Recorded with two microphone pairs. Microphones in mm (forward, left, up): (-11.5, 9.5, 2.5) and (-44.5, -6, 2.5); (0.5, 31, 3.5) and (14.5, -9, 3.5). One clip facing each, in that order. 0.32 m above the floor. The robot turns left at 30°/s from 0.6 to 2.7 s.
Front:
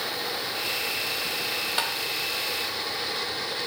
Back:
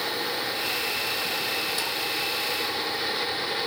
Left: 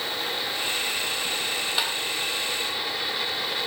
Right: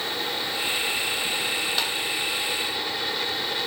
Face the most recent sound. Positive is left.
turn(degrees=10)